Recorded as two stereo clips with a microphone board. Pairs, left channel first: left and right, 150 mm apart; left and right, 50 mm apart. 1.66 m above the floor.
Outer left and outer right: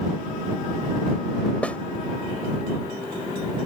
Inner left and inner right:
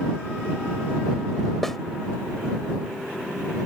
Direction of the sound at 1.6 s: 10° left (ahead or behind).